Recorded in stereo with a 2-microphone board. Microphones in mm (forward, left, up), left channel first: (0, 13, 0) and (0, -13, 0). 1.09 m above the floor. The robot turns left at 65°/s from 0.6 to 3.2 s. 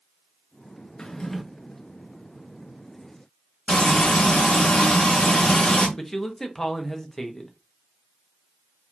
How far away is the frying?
About 3 m.